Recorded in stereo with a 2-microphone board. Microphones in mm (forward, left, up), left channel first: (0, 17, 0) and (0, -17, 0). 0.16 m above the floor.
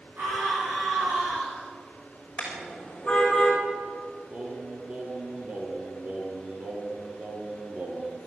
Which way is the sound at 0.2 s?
60° right (ahead or behind).